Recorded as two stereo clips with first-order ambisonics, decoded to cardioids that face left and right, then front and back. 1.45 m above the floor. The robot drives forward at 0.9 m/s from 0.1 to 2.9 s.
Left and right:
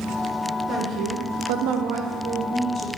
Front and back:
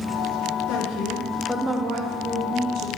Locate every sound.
0.7 s a woman speaking: 30° right, 0.9 m; by 2.9 s 160° right, 1.3 m